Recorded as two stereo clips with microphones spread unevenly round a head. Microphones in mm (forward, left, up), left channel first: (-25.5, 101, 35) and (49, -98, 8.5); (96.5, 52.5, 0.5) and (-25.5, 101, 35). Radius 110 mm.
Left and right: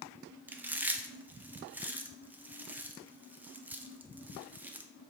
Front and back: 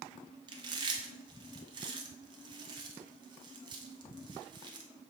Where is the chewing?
140° right, 0.6 m.